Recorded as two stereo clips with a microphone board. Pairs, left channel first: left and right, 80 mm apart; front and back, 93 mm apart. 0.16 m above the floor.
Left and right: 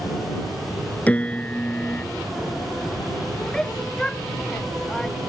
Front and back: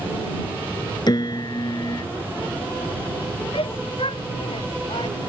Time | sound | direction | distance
1.1 | a piano | 20° left | ?
3.5 | a shout | 10° left | ?